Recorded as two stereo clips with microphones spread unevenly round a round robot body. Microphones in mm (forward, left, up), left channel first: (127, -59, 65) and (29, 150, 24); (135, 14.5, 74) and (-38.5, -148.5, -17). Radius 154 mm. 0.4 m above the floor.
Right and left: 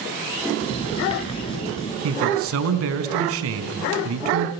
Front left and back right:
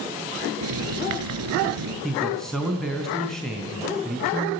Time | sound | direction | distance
0.6 | writing | 140° right | 3.5 m
2.0 | a man speaking | 135° left | 3.5 m